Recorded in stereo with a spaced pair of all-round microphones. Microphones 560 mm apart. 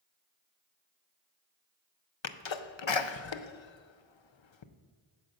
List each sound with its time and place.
2.2 s a sneeze: 55° left (ahead or behind), 0.6 m